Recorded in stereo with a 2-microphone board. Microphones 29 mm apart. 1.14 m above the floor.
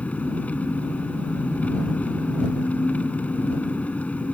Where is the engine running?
55° left (ahead or behind).